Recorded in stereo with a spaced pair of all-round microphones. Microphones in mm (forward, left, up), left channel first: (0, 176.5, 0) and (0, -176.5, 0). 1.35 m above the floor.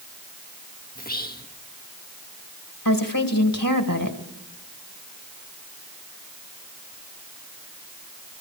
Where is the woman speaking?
65° left (ahead or behind), 2 m.